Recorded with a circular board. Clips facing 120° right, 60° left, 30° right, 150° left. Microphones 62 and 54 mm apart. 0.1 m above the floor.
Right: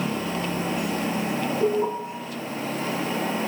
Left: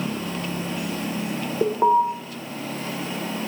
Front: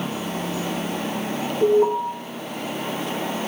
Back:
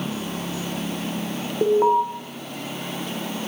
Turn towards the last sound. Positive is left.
turn(degrees=95)